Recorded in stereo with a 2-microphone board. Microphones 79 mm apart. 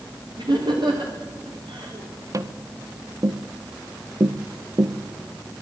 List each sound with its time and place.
0.4 s laughter: 65° right (ahead or behind), 5.5 m
2.3 s tapping: 45° right (ahead or behind), 1.0 m